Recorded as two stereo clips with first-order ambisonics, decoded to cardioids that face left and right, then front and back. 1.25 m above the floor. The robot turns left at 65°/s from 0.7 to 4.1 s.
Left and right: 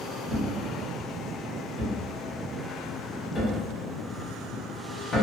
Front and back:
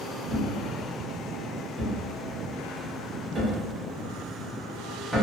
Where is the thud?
40° right, 0.7 m; by 5.2 s 95° left, 0.7 m.